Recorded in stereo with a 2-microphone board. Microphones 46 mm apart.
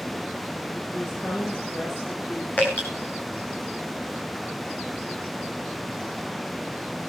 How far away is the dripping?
About 8 m.